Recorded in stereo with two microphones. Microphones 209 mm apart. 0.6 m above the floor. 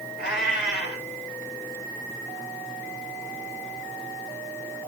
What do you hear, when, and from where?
0.2 s a cat meowing: 60° left (ahead or behind), 1.8 m